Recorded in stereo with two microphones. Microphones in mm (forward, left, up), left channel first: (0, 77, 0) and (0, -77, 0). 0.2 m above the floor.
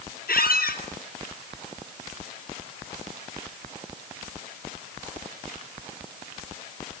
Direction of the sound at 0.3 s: 70° left (ahead or behind).